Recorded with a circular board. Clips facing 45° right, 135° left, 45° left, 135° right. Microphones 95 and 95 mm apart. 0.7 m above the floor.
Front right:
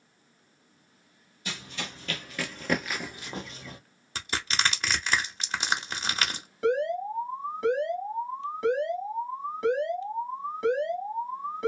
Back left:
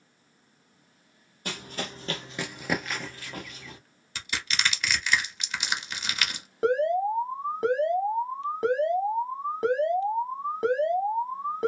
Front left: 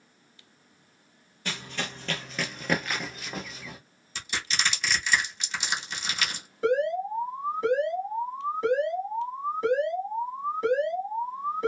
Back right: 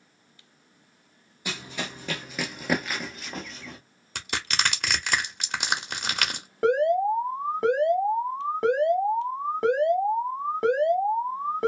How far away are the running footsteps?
About 1.0 m.